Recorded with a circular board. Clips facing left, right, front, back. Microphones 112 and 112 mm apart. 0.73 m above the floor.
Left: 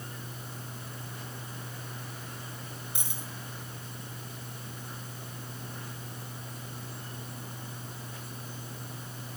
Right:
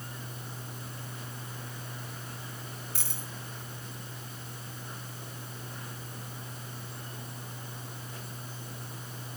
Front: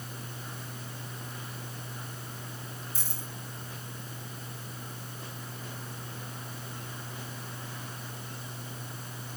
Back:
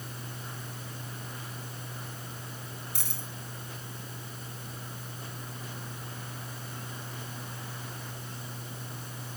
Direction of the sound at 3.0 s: 165° left.